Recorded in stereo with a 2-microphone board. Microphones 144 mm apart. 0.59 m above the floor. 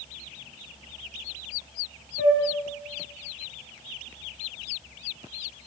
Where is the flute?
55° left (ahead or behind), 1.4 m.